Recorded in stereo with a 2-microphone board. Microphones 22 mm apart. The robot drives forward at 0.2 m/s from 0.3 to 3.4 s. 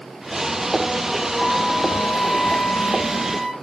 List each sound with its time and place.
1.4 s a flute: 70° left (ahead or behind), 0.8 m; by 3.5 s 55° left (ahead or behind), 0.9 m